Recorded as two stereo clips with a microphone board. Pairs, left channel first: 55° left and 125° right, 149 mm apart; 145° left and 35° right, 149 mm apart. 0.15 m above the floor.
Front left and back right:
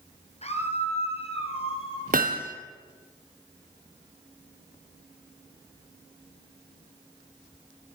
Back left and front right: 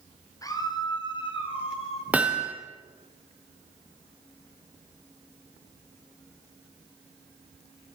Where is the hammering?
115° right, 2.5 m.